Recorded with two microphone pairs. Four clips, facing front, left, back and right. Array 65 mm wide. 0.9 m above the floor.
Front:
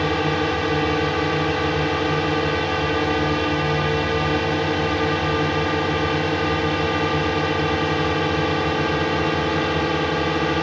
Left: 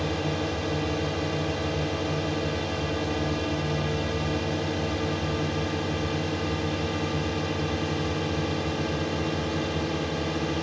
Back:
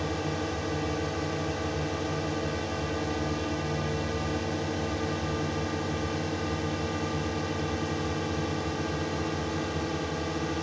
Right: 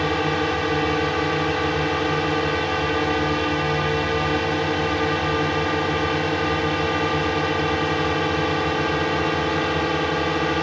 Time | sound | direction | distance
0.0 | a drone | 45° right | ?